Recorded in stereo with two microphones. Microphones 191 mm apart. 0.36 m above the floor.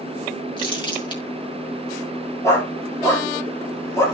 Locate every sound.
0.6 s crumpling: 25° left (ahead or behind), 5 m
2.4 s a dog barking: 15° left (ahead or behind), 4 m